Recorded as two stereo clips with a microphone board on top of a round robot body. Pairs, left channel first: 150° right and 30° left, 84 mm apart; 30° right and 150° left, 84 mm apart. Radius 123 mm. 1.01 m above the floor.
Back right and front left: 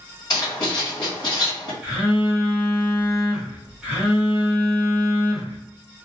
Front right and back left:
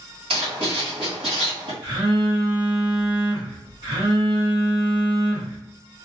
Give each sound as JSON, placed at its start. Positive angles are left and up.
{"t": 0.3, "sound": "writing", "azimuth_deg": 160, "distance_m": 1.4}
{"t": 1.8, "sound": "a phone buzzing", "azimuth_deg": 115, "distance_m": 1.1}